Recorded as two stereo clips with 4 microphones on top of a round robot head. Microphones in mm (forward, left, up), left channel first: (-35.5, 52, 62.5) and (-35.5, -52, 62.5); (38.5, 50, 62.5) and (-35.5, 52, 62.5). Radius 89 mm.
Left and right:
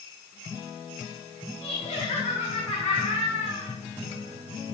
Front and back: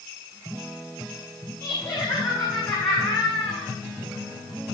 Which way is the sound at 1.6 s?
45° left.